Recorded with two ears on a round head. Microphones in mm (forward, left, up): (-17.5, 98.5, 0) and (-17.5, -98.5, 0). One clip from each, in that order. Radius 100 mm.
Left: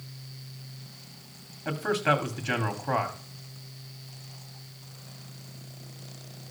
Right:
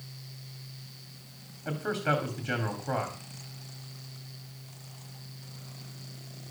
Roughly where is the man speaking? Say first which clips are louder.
Left 4 dB; left.